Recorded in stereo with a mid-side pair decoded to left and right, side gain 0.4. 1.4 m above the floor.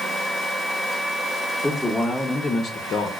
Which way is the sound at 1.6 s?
10° left.